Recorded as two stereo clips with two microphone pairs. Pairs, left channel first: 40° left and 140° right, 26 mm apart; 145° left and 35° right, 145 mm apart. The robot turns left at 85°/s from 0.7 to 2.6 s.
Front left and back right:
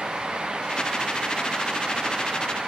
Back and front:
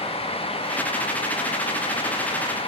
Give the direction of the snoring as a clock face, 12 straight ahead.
No snoring in this recording.